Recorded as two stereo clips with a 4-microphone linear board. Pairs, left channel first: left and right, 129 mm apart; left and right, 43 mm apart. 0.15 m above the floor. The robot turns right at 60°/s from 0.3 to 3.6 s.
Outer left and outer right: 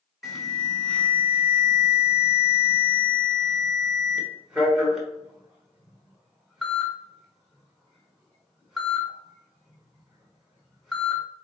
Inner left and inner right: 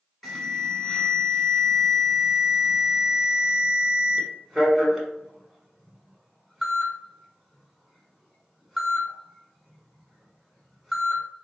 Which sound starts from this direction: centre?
An alarm, at 0.2 s.